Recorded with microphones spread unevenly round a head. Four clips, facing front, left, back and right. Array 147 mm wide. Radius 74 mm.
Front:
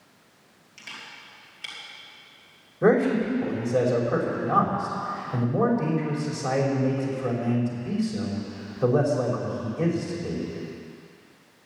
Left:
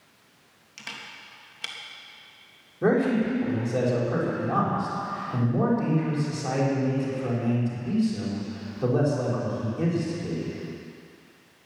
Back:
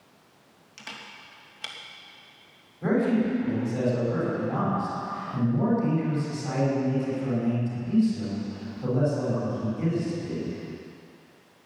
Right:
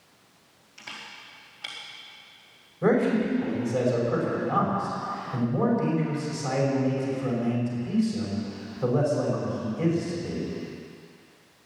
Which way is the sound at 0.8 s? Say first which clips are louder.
Left 1 dB, back 1 dB; 110° left.